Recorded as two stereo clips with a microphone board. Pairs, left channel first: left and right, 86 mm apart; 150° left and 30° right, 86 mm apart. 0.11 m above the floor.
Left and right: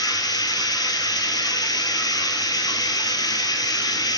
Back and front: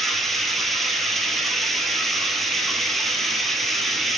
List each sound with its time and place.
0.0 s running water: 60° left, 0.9 m